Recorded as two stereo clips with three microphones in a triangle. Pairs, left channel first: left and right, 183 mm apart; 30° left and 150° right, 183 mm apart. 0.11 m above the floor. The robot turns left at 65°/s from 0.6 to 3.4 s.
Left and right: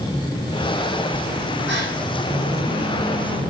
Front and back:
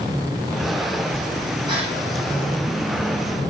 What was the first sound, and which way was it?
A gasp, 85° right.